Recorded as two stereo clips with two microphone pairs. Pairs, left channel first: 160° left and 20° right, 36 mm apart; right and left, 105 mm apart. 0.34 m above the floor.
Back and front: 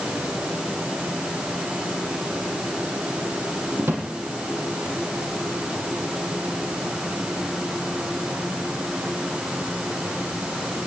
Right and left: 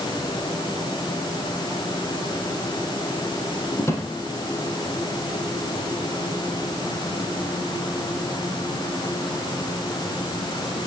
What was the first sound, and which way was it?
A drawer, 25° right.